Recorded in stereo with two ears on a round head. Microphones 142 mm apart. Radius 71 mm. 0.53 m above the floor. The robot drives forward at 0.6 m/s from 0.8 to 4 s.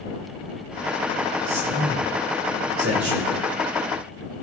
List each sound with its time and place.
1.5 s a man speaking: 75° right (ahead or behind), 5 m; by 3.3 s 80° right, 5 m